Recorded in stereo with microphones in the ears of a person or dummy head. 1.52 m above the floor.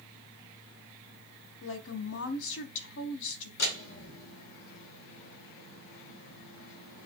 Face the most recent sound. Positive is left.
turn(degrees=75)  # may be behind; listen again after turning